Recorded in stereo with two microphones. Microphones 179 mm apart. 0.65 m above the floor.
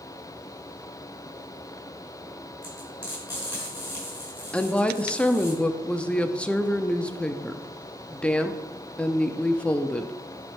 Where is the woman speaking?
5° left (ahead or behind), 0.5 m.